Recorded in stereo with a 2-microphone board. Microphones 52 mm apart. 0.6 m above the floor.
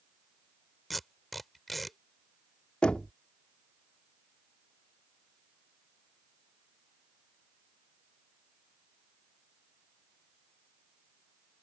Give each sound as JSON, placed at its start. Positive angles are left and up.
{"t": 0.9, "sound": "tape being pulled", "side_deg": 0}
{"t": 2.8, "sound": "knocking", "side_deg": 20}